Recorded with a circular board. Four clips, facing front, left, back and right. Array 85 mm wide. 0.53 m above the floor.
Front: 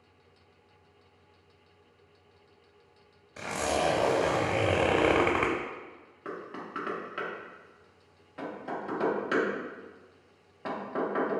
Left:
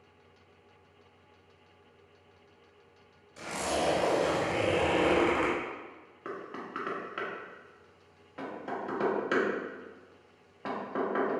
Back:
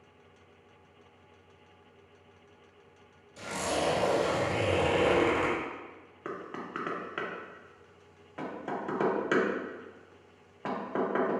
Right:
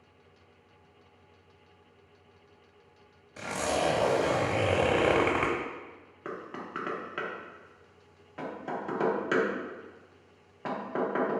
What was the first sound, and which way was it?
A zipper, 35° right.